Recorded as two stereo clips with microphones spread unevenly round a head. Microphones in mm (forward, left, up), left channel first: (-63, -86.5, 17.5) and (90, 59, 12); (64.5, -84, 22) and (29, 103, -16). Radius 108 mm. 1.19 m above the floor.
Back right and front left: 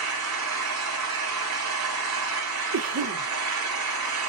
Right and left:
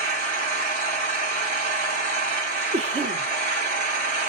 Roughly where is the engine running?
Ahead left.